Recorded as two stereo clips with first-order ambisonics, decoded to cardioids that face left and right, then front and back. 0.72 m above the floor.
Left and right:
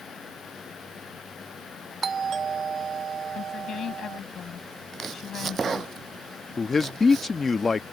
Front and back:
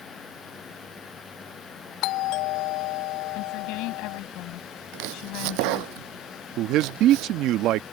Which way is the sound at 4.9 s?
165° right.